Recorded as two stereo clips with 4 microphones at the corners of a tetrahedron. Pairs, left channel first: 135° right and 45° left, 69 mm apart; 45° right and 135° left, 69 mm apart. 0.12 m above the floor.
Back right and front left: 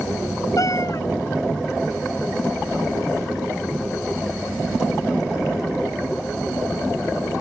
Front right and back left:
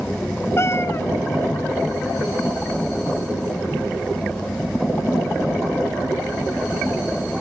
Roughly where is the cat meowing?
Right.